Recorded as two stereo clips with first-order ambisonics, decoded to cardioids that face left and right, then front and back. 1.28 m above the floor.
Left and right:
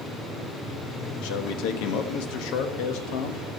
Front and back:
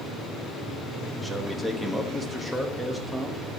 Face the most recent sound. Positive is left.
turn(degrees=90)